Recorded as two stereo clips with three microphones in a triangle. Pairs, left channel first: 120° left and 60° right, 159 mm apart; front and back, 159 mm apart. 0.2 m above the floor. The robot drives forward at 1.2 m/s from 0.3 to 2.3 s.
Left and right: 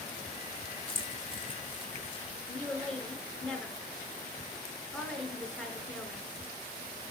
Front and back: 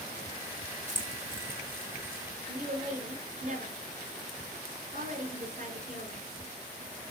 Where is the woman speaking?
155° right, 2 m.